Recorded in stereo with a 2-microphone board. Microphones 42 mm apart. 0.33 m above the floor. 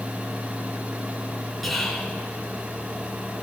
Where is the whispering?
Centre (ahead or behind), 1.8 m.